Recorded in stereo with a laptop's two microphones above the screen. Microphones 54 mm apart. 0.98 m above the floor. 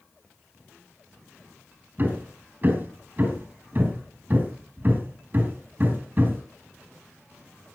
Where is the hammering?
35° right (ahead or behind), 5.5 m.